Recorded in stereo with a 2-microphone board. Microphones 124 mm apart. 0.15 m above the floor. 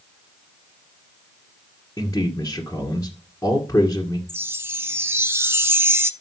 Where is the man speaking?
20° left (ahead or behind), 1.9 m.